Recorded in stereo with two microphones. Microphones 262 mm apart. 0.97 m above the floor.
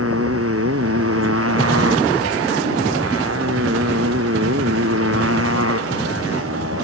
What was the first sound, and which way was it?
A motorcycle, 60° right (ahead or behind).